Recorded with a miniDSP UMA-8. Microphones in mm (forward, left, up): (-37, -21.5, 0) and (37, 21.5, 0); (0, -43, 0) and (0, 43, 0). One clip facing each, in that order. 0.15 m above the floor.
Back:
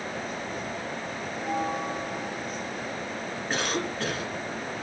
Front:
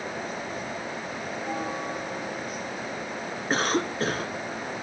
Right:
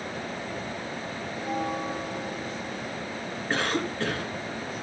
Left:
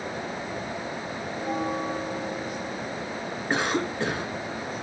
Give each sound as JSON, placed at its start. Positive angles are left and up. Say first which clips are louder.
{"t": 1.3, "sound": "a bell", "louder": "back 3 dB, left 2 dB", "azimuth_deg": 120, "distance_m": 2.5}
{"t": 3.5, "sound": "a cough", "louder": "front 4 dB, left 2 dB", "azimuth_deg": 30, "distance_m": 1.7}